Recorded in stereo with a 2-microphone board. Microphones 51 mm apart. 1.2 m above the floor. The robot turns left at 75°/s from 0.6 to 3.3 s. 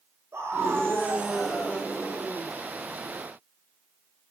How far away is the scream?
About 6 m.